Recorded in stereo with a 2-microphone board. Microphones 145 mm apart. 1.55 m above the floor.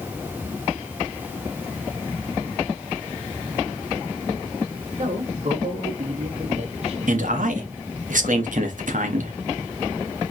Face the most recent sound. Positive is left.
turn(degrees=-70)  # may be behind; listen again after turning